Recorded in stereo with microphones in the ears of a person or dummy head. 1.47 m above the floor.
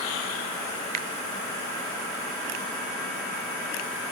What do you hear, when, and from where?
0.9 s a finger snap: 45° right (ahead or behind)